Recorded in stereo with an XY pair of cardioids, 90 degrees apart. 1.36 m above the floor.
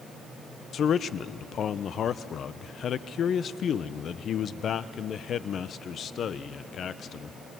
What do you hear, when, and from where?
0.7 s a man speaking: 65° left, 0.8 m